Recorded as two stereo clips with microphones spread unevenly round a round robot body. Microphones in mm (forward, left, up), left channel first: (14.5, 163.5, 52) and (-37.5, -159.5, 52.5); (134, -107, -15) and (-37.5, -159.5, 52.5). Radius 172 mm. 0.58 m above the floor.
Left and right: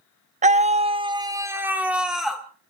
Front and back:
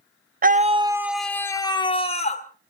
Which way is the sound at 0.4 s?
140° right.